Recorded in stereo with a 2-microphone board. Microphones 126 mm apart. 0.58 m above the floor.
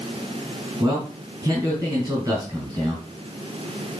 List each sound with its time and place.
0.8 s a man speaking: 30° right (ahead or behind), 4.5 m